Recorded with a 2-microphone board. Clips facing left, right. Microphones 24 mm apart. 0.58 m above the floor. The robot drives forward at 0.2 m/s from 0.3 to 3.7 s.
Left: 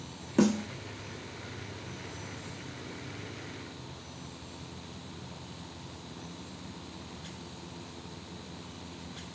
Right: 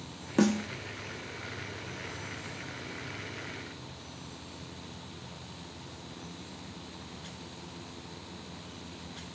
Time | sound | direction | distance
0.4 | a snare drum | 15° right (ahead or behind) | 1.0 m